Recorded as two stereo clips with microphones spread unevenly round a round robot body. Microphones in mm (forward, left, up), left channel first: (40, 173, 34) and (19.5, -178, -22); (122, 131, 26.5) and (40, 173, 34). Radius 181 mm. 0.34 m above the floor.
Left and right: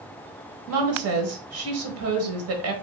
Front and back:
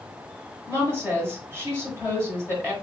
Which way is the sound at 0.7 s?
100° right.